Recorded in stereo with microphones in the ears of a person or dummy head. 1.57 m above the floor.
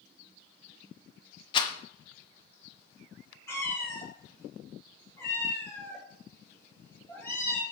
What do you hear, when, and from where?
1.5 s a rattle: 30° left (ahead or behind), 1.0 m
3.5 s a cat meowing: 15° left (ahead or behind), 2.5 m